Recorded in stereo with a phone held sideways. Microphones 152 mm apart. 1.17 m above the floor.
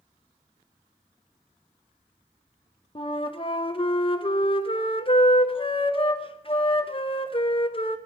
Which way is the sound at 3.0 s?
35° left (ahead or behind).